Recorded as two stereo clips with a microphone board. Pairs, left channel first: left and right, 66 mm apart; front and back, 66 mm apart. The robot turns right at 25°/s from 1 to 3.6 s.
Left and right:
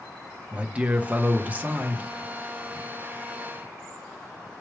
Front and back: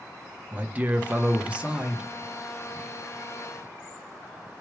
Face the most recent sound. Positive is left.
turn(degrees=-75)